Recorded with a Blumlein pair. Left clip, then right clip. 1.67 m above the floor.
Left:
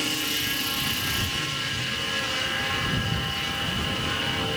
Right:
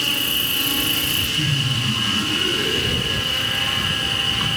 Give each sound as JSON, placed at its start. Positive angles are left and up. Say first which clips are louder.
{"t": 0.0, "sound": "an insect", "louder": "right 6 dB", "azimuth_deg": -25}
{"t": 1.4, "sound": "laughter", "louder": "right 6 dB", "azimuth_deg": -35}